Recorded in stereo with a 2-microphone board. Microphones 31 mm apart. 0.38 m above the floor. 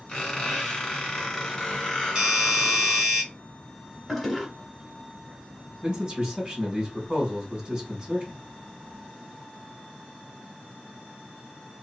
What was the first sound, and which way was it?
A squeak, 20° left (ahead or behind).